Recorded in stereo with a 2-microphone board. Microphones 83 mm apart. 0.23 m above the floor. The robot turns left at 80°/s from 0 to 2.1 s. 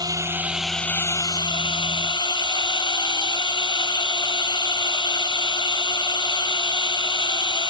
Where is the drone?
125° right; by 7.7 s 65° left.